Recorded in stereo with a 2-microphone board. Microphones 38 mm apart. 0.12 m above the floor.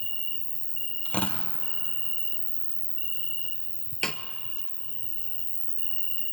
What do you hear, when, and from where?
0.0 s an insect: 20° left (ahead or behind), 0.9 m
1.1 s tearing paper: 30° left (ahead or behind), 1.8 m
4.0 s a snare drum: 10° left (ahead or behind), 0.8 m